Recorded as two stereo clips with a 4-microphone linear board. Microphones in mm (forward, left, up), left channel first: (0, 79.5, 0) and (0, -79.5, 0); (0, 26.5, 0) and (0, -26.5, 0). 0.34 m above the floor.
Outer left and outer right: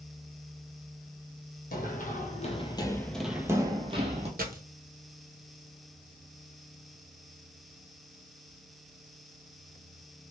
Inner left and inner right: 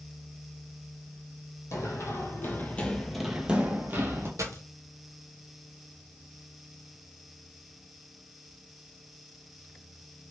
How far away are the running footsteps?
About 1.0 m.